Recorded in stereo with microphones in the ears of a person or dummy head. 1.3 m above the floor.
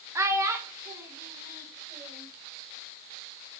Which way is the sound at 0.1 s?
15° right (ahead or behind).